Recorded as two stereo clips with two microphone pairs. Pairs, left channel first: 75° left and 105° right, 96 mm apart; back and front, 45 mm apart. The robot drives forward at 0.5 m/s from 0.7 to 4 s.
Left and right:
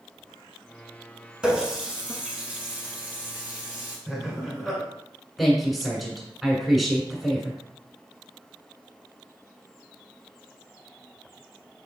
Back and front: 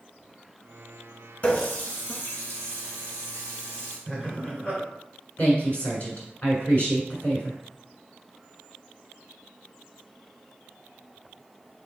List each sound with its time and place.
1.4 s a running tap: 175° right, 1.0 m; by 4.0 s straight behind, 2 m
4.1 s laughter: 175° left, 1.7 m
5.4 s a woman speaking: 165° left, 1.3 m